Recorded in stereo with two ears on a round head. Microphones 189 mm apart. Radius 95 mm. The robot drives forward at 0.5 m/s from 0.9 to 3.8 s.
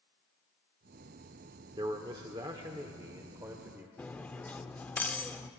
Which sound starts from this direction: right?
A man speaking, at 1.8 s.